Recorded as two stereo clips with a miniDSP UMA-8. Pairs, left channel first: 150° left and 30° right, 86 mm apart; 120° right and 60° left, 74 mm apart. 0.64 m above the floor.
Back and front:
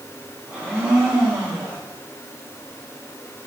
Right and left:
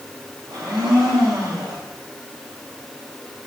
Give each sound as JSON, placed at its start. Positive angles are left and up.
{"t": 0.5, "sound": "a blender", "azimuth_deg": 40, "distance_m": 4.0}